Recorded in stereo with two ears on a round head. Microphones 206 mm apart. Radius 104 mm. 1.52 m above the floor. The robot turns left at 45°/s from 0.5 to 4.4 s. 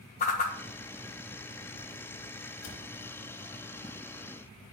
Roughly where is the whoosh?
Left.